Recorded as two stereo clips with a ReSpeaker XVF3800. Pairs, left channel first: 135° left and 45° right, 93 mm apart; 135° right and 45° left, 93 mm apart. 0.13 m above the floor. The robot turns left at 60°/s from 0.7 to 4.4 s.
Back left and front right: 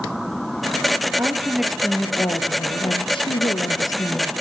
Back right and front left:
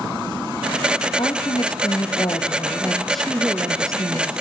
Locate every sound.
1.2 s a woman speaking: 105° right, 2.5 m; by 4.3 s 70° left, 2.5 m